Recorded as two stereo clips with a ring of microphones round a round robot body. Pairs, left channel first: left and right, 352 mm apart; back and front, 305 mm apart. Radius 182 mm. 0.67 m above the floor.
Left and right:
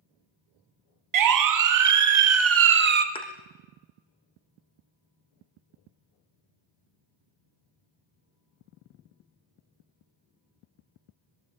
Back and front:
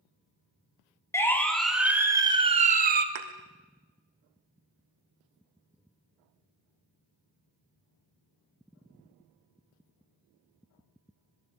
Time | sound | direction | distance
1.1 | a siren | 100° right | 2.5 m
3.1 | a thud | 15° left | 3.5 m